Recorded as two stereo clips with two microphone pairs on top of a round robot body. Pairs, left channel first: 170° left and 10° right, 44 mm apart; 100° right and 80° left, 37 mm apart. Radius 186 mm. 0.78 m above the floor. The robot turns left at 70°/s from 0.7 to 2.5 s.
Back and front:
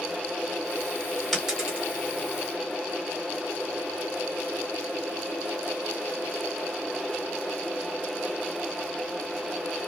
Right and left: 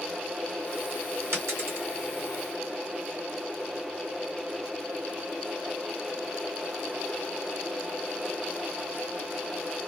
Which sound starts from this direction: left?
A dropped coin, at 1.3 s.